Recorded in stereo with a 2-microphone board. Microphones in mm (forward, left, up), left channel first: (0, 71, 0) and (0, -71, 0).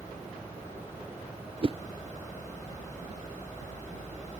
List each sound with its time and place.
1.6 s a whoosh: 40° right (ahead or behind)